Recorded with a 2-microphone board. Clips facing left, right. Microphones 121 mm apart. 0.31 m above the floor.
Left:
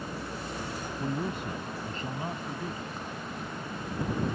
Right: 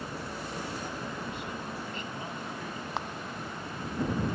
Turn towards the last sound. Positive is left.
turn(degrees=-80)